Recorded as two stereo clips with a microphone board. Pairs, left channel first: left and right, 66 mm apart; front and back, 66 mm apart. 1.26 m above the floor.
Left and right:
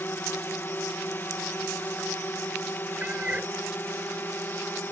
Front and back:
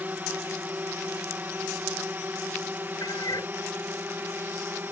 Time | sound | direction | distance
0.0 | a drone | 130° left | ?
3.0 | a cat meowing | 20° right | ?